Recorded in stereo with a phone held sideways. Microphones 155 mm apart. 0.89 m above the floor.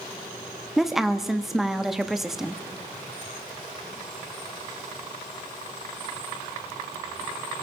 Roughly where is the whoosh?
I don't hear a whoosh.